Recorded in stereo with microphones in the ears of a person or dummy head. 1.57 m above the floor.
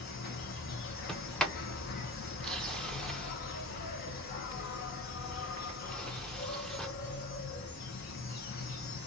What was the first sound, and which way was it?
An insect, 50° left (ahead or behind).